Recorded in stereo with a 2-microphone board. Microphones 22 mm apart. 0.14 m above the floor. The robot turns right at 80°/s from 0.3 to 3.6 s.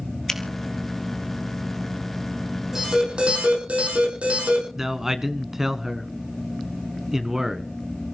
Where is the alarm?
155° right, 7.5 m; by 4.7 s 85° right, 7.5 m.